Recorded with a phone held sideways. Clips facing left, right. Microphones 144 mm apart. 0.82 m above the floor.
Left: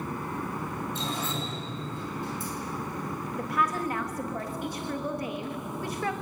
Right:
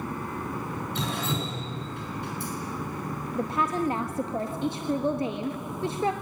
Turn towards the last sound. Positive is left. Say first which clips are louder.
# right 3 dB
turn(degrees=-30)  # may be behind; listen again after turning